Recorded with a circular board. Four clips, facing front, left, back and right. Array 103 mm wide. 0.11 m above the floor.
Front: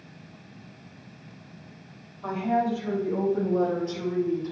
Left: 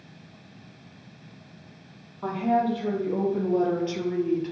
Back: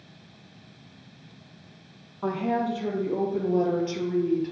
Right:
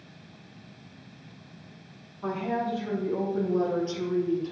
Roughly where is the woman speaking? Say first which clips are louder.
Left 5 dB, front 1 dB; behind left.